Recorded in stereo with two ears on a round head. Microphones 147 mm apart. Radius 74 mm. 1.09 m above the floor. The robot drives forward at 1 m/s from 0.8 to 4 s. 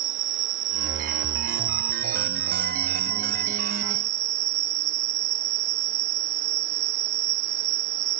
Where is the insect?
50° right (ahead or behind); by 8.2 s 75° right (ahead or behind).